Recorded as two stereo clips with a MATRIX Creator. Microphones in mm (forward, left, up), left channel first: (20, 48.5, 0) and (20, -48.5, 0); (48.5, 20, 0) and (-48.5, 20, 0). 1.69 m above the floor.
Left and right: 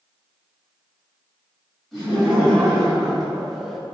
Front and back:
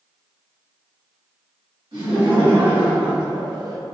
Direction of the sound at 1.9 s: Straight behind.